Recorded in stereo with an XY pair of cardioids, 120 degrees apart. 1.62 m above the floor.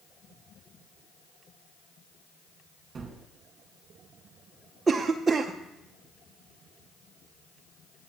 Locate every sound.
3.0 s a gunshot: 35° right, 1.6 m
4.9 s a cough: 25° right, 0.5 m